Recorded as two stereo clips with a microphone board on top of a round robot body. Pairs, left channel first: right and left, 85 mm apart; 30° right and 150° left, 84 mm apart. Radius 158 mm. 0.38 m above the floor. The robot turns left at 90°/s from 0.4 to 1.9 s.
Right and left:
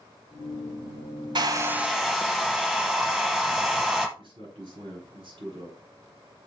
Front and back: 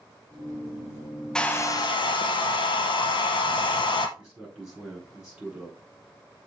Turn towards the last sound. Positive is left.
turn(degrees=70)